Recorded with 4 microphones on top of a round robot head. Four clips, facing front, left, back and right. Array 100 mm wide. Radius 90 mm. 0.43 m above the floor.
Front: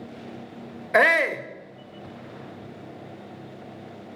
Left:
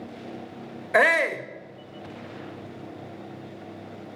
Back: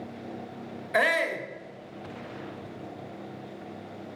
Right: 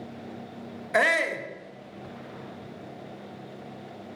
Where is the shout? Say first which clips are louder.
Left 3 dB, front 6 dB; 30° left, 1.2 m.